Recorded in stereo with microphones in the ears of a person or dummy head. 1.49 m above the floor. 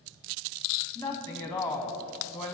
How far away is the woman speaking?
About 0.7 m.